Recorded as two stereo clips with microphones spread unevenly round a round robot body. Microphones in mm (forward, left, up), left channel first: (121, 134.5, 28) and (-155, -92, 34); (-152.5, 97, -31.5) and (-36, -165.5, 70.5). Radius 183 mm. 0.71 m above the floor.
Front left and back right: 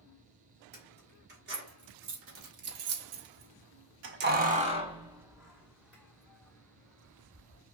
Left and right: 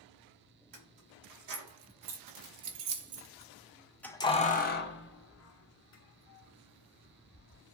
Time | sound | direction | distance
0.7 | keys jangling | 75° right | 1.8 m